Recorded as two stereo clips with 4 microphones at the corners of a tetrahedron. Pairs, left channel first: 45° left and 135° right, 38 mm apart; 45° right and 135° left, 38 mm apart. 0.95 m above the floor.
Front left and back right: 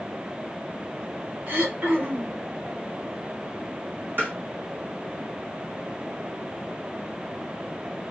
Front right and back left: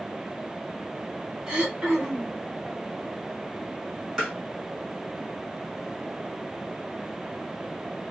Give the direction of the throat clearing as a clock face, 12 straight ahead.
5 o'clock.